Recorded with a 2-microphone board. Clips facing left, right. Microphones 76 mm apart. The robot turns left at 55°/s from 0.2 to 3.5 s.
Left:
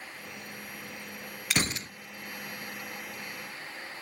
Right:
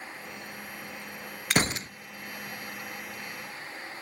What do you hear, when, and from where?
1.5 s a gunshot: 40° right (ahead or behind), 0.6 m; by 1.9 s 25° right (ahead or behind), 0.6 m